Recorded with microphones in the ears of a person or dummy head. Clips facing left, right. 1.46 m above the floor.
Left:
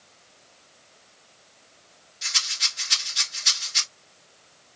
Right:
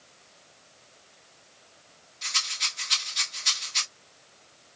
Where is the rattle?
5° left (ahead or behind), 1.1 m.